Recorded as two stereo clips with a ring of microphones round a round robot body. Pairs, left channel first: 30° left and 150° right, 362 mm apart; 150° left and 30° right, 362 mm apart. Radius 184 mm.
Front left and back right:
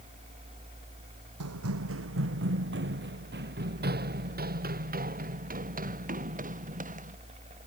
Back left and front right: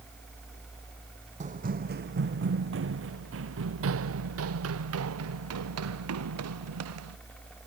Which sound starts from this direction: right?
Running footsteps, at 1.4 s.